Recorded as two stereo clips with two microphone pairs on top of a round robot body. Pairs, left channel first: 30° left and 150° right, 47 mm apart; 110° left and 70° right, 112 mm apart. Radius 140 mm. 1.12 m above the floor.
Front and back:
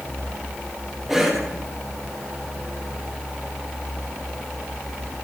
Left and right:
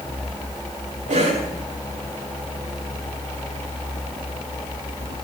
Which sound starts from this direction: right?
A cough, at 1.1 s.